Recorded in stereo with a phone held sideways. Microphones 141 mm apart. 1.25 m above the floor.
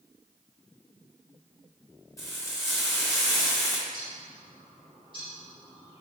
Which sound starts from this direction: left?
Frying, at 2.2 s.